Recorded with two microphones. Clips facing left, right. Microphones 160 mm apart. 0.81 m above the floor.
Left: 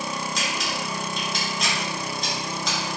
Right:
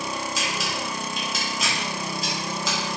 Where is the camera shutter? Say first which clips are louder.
Even; 5° right (ahead or behind), 1.1 m.